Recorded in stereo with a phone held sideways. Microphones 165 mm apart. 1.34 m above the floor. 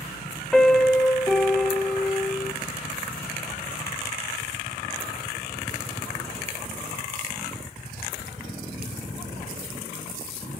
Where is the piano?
5° left (ahead or behind), 1.1 m.